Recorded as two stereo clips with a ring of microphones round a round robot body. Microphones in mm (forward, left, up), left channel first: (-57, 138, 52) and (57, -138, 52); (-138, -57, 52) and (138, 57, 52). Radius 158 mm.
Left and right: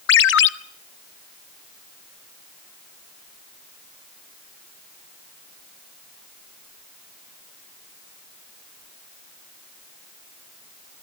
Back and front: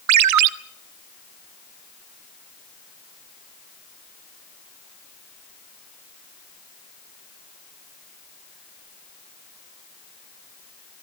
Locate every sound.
0.1 s a ringtone: 60° left, 0.8 m